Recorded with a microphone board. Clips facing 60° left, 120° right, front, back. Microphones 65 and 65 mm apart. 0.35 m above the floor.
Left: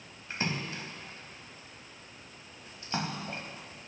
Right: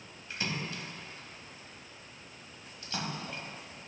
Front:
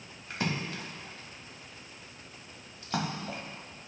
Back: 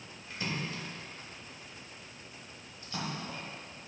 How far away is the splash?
About 0.7 m.